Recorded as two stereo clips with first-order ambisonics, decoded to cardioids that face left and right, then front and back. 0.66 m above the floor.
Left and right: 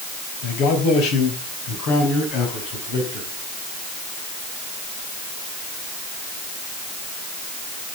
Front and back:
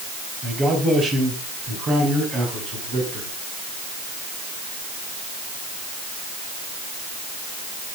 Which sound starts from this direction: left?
A man speaking, at 0.4 s.